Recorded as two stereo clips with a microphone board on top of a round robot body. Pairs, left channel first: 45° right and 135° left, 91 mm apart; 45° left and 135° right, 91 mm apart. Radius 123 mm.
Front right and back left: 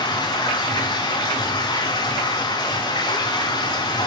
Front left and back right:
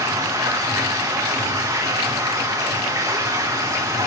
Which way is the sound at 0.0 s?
85° right.